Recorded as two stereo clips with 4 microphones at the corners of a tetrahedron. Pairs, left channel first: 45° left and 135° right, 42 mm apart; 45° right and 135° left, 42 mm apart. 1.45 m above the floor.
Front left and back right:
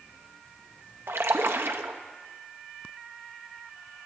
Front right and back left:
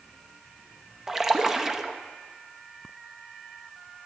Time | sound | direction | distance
1.1 | a splash | 145° right | 0.6 m